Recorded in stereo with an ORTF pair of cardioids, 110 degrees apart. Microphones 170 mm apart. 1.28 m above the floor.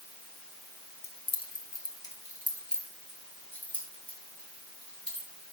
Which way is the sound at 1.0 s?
35° left.